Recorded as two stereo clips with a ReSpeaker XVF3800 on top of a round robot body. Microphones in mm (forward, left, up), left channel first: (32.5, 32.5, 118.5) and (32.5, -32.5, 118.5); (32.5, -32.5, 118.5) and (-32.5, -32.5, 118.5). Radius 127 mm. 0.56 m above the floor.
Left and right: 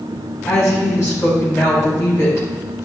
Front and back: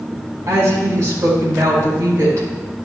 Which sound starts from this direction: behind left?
A woman speaking, at 0.5 s.